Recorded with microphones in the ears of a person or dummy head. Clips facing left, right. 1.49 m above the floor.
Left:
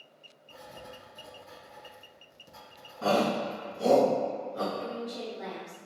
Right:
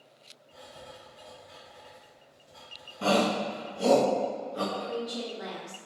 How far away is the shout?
About 1.0 m.